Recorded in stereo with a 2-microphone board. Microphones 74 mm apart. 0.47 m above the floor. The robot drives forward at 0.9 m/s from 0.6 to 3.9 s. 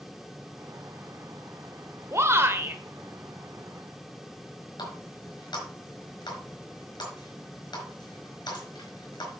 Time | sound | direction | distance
2.1 | a shout | 40° right (ahead or behind) | 1.5 m
4.8 | a running tap | 80° left | 4.5 m